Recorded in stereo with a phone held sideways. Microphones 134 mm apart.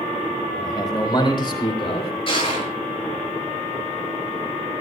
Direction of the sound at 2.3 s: 40° left (ahead or behind).